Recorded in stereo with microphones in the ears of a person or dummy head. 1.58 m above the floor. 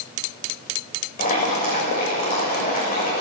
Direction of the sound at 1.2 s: 40° left (ahead or behind).